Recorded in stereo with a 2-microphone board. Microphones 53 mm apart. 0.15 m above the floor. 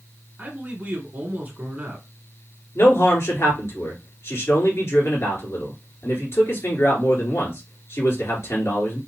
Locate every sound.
0.4 s a man speaking: 30° right (ahead or behind), 1.8 m
2.8 s a man speaking: 55° left (ahead or behind), 2.5 m